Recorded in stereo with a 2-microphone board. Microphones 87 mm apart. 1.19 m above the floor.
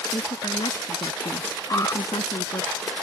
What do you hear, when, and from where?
0.1 s a woman speaking: 85° left; by 2.7 s 80° left
1.7 s an alarm: 45° left (ahead or behind)